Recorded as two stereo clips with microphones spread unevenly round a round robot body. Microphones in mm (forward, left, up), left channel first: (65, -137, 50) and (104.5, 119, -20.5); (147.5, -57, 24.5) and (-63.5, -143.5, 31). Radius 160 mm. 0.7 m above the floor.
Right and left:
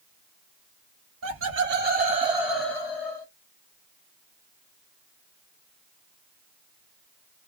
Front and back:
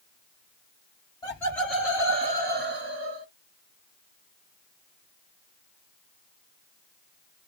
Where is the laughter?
95° left, 1.3 m; by 3.3 s 165° right, 1.1 m.